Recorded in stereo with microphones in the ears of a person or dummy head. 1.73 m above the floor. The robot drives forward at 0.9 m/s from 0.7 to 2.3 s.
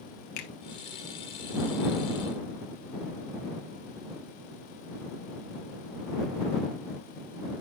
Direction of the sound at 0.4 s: 50° left (ahead or behind).